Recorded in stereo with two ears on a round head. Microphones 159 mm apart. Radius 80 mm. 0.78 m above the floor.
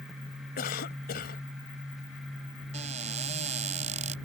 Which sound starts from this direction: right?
A cupboard door, at 2.7 s.